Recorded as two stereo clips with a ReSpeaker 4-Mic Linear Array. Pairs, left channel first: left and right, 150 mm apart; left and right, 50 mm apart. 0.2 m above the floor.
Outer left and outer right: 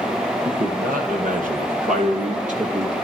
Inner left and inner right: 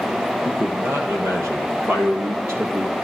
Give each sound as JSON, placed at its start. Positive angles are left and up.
{"t": 0.5, "sound": "a man speaking", "side_deg": -65, "distance_m": 5.0}